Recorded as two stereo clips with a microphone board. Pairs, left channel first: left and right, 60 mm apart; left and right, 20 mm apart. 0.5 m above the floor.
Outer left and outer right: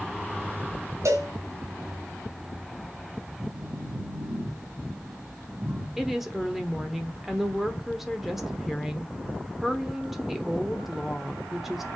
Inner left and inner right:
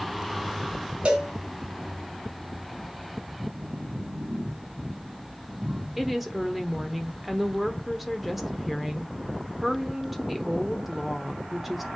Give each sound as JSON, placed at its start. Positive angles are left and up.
{"t": 1.1, "sound": "a cowbell", "side_deg": -60, "distance_m": 3.0}
{"t": 3.4, "sound": "a phone buzzing", "side_deg": -65, "distance_m": 2.5}
{"t": 6.0, "sound": "a woman speaking", "side_deg": -5, "distance_m": 1.1}